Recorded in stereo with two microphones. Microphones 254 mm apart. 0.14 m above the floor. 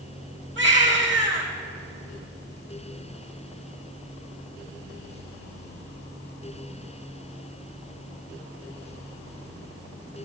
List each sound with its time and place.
0.6 s a baby crying: 45° right (ahead or behind), 4 m